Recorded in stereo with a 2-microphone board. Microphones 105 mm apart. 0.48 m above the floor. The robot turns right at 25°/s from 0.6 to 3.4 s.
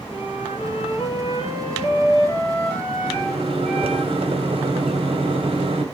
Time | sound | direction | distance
0.1 | a flute | 115° left | 9.5 m
3.0 | a microwave | 65° right (ahead or behind) | 2.5 m